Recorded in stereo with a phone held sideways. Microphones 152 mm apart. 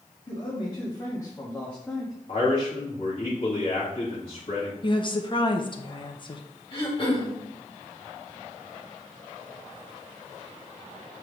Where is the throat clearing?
35° left (ahead or behind), 1.9 m.